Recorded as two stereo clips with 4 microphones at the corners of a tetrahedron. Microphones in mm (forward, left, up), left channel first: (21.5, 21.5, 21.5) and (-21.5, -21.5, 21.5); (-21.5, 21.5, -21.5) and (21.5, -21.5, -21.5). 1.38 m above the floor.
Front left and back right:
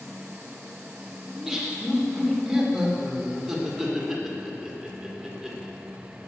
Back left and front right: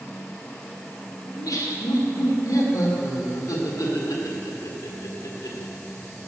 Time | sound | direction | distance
1.3 | laughter | 140° left | 1.7 m